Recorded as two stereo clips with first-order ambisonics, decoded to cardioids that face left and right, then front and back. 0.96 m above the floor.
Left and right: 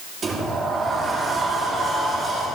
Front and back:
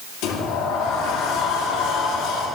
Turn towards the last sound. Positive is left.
turn(degrees=-25)